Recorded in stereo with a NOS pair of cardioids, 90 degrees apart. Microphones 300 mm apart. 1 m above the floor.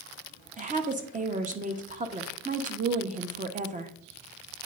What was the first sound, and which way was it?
A woman speaking, 25° right.